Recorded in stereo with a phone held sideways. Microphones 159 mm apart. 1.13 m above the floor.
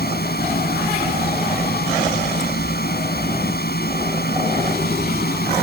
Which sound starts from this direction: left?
A machine running, at 0.0 s.